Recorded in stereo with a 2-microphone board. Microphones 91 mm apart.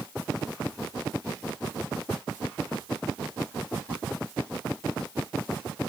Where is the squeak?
No squeak in this recording.